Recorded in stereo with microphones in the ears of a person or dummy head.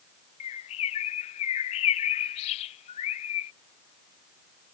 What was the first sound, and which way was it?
A bird, 30° left (ahead or behind).